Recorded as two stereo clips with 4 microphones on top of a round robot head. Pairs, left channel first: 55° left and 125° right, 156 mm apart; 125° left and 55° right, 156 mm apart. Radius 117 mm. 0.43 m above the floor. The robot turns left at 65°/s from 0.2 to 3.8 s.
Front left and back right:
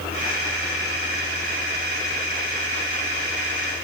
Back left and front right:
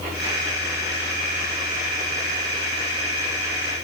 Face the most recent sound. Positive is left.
No sound to turn to.